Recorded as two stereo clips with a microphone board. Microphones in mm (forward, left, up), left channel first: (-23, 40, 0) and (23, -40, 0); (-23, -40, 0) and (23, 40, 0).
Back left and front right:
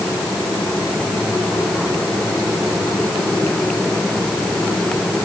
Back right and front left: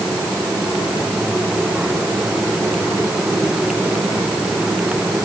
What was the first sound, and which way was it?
Only background noise.